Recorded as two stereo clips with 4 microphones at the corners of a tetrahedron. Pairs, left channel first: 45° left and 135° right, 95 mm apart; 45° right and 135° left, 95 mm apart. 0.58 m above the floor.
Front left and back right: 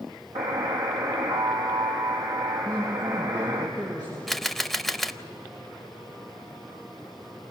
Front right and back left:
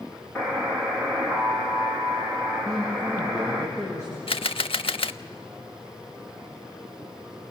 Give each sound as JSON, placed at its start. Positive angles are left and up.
{"t": 0.3, "sound": "a buzzer", "azimuth_deg": -125, "distance_m": 4.0}
{"t": 2.6, "sound": "a man speaking", "azimuth_deg": -95, "distance_m": 8.5}
{"t": 4.3, "sound": "a camera shutter", "azimuth_deg": -40, "distance_m": 0.5}